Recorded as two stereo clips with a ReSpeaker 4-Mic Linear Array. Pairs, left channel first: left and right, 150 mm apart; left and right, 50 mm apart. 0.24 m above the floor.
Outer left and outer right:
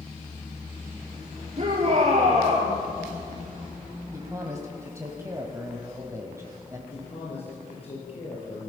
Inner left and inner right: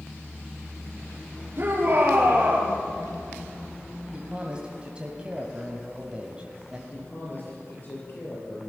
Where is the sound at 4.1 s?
20° right (ahead or behind), 1.9 m.